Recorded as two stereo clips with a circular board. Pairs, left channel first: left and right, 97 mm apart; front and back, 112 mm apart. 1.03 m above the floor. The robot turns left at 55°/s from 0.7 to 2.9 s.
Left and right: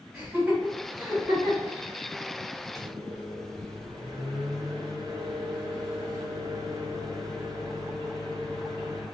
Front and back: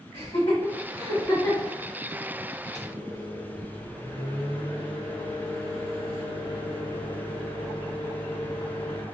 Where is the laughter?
30° right, 1.4 m; by 1.7 s 85° right, 1.4 m.